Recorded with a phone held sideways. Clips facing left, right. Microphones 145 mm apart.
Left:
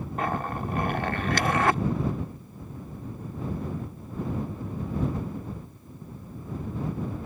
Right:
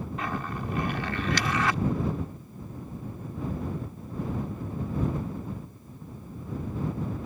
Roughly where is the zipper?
Left.